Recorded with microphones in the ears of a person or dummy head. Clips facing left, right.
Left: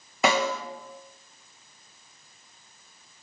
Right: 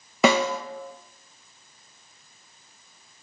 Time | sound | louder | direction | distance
0.2 | a snare drum | right 4 dB | 60° right (ahead or behind) | 1.6 m